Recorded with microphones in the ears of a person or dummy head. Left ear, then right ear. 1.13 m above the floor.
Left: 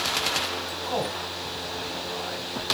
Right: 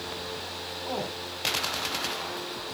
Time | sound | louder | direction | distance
0.8 | a man speaking | left 4 dB | 5° left (ahead or behind) | 9 m